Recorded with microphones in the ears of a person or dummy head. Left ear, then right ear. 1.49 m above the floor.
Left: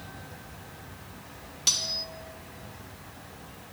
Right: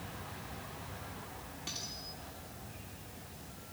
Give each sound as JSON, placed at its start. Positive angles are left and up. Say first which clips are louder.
{"t": 1.7, "sound": "cutlery clinking", "louder": "left 16 dB", "side_deg": 60, "distance_m": 2.0}